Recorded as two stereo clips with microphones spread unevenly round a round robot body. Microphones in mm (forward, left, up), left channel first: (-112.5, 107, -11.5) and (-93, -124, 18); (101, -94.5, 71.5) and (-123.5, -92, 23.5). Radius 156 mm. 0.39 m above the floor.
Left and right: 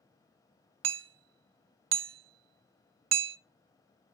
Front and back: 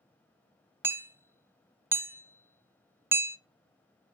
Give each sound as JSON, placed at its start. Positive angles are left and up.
{"t": 0.8, "sound": "hammering", "azimuth_deg": -100, "distance_m": 0.6}